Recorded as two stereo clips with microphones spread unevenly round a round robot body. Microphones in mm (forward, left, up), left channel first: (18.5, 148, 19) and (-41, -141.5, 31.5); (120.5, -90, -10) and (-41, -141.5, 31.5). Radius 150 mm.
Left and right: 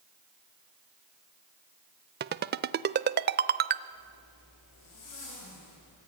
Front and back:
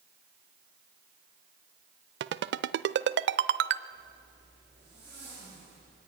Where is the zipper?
100° left, 9.5 m.